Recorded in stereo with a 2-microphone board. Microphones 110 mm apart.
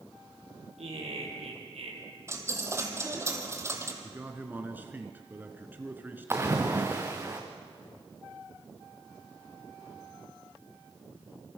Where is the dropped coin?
25° right (ahead or behind), 2.5 m.